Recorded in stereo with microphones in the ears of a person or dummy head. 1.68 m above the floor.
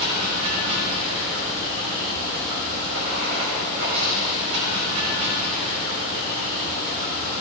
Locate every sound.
0.0 s running water: 70° right (ahead or behind), 5.5 m